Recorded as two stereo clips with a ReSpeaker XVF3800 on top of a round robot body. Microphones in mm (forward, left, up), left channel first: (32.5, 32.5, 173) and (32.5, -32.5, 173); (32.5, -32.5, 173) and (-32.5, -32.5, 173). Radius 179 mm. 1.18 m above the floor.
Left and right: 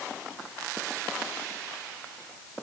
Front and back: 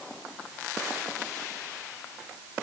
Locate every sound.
Only background noise.